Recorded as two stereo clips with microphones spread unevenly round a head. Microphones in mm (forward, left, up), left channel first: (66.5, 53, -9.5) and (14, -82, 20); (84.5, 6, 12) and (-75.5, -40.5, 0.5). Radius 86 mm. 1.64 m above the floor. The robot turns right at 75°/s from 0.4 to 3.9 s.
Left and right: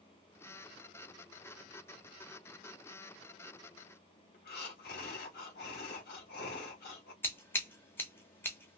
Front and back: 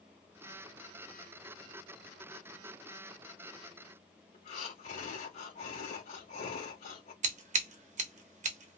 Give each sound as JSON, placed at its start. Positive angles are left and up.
{"t": 4.3, "sound": "breathing", "azimuth_deg": 65, "distance_m": 2.5}
{"t": 7.2, "sound": "scissors", "azimuth_deg": 155, "distance_m": 1.0}